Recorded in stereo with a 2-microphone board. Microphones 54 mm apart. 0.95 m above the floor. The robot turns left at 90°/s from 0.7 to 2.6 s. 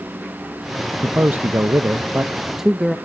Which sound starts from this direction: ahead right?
A man speaking, at 1.0 s.